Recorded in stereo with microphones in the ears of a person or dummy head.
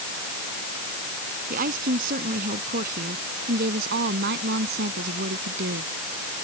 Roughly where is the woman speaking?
Right.